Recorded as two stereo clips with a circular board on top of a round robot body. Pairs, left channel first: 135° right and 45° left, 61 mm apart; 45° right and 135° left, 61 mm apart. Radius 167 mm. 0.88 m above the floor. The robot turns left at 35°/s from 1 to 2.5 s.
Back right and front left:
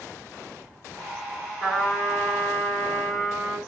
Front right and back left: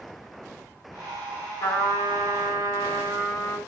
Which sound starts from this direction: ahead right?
A trumpet, at 1.6 s.